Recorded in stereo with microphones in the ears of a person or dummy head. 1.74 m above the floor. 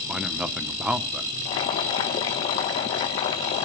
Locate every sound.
0.1 s a man speaking: 5° right (ahead or behind), 1.0 m
1.4 s boiling: 30° left (ahead or behind), 1.1 m